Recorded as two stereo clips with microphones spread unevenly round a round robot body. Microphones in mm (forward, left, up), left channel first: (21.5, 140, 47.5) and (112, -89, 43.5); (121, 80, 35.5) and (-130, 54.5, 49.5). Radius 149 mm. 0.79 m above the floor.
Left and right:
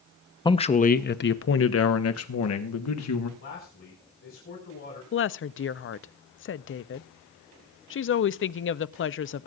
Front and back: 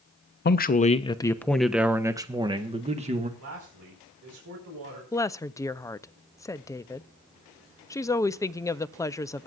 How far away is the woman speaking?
About 0.6 m.